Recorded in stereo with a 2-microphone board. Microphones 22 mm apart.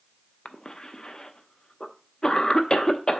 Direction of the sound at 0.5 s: 30° left (ahead or behind).